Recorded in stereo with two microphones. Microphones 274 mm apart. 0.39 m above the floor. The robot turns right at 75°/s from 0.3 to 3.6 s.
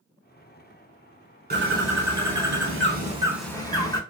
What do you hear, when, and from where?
1.5 s a bird: 145° right, 0.7 m; by 4.0 s 15° left, 0.7 m